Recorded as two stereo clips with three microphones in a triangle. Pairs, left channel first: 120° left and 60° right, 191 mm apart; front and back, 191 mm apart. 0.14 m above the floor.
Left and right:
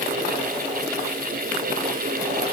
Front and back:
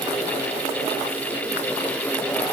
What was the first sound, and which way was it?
Only background noise.